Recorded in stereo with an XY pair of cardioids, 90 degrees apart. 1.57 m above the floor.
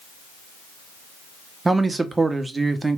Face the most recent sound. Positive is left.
turn(degrees=-25)